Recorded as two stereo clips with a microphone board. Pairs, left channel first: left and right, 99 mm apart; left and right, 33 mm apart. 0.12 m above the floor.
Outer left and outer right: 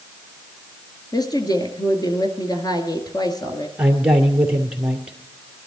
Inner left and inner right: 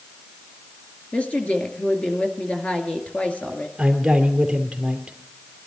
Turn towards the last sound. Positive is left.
turn(degrees=-10)  # may be behind; listen again after turning